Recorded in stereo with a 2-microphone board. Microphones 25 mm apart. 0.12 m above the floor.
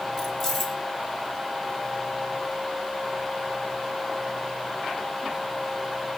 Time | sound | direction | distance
0.2 | keys jangling | 10° left (ahead or behind) | 2 m